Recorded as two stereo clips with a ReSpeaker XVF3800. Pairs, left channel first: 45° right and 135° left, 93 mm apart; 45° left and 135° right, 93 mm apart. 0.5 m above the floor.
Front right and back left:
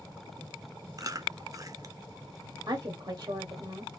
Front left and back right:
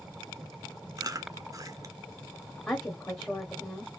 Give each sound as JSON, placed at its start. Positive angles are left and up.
{"t": 1.0, "sound": "chewing", "azimuth_deg": 180, "distance_m": 0.5}
{"t": 2.7, "sound": "a woman speaking", "azimuth_deg": 115, "distance_m": 1.0}